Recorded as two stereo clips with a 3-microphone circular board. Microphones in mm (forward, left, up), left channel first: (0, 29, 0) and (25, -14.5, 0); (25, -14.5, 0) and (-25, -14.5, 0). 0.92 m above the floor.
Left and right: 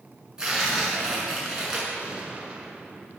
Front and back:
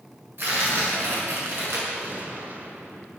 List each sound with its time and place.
0.4 s tearing paper: 140° right, 6.5 m
1.9 s a gunshot: 125° right, 2 m